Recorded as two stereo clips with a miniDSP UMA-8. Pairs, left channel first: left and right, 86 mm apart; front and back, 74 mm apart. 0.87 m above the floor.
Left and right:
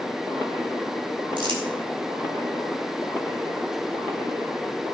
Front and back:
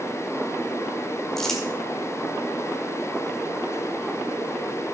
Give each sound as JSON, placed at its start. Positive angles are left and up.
{"t": 1.4, "sound": "crumpling", "azimuth_deg": -85, "distance_m": 2.0}